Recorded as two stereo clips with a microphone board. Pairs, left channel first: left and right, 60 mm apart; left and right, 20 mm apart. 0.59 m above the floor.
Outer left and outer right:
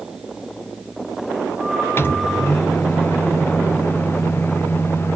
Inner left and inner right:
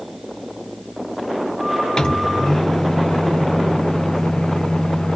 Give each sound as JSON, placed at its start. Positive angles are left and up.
{"t": 2.0, "sound": "a microwave", "side_deg": 40, "distance_m": 0.6}